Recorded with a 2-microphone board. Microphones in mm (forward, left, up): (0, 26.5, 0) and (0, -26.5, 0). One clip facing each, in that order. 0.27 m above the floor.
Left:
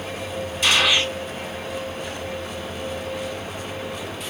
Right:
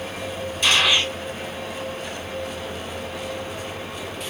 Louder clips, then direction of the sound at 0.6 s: Even; 5° left (ahead or behind).